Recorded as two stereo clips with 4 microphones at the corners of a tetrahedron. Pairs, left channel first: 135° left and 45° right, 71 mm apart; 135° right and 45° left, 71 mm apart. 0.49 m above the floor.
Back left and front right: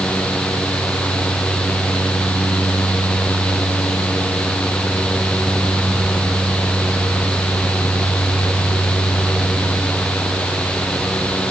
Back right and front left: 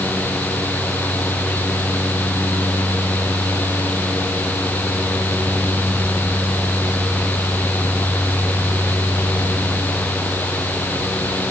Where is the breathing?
I don't hear breathing.